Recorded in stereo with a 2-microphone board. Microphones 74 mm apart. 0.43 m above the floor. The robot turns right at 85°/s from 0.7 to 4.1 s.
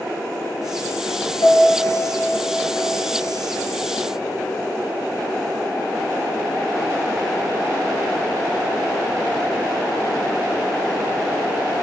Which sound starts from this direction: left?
A piano, at 1.4 s.